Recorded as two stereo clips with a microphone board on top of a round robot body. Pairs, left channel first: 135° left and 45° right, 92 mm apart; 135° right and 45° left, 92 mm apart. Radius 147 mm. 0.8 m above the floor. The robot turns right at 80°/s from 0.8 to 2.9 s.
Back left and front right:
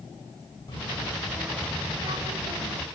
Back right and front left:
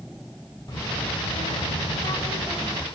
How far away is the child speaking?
About 5 m.